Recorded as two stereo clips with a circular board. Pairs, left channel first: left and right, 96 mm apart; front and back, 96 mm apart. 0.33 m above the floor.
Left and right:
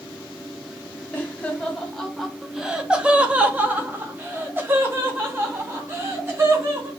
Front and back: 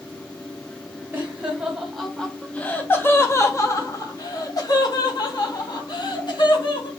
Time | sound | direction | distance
1.1 | laughter | 135° left | 1.1 m